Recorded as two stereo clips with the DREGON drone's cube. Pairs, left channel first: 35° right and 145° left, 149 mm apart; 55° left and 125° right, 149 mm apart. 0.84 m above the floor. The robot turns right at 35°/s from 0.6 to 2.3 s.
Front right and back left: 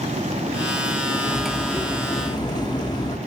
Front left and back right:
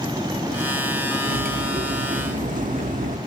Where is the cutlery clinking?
135° right, 0.7 m; by 3.2 s 95° right, 0.7 m.